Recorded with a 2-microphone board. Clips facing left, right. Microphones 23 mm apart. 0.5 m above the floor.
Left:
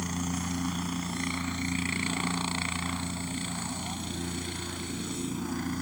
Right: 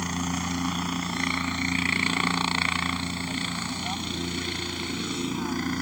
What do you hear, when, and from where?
0.0 s a helicopter: 25° right (ahead or behind); by 5.8 s 40° right (ahead or behind)